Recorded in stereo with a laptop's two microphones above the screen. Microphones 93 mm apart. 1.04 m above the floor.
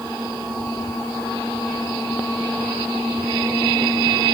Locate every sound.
Only background noise.